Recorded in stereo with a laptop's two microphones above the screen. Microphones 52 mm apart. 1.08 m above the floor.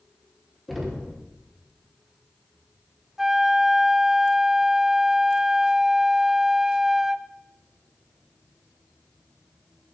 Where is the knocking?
Centre (ahead or behind), 3 m.